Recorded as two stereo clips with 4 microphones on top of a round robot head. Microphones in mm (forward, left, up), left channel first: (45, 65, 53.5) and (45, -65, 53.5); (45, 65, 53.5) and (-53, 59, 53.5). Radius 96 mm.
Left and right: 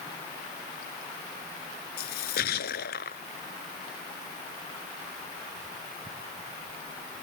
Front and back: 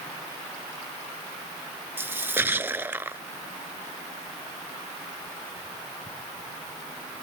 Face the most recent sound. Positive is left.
turn(degrees=115)